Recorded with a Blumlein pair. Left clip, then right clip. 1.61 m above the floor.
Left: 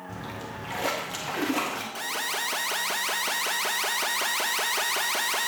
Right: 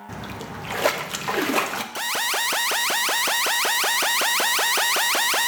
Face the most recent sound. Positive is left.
turn(degrees=-70)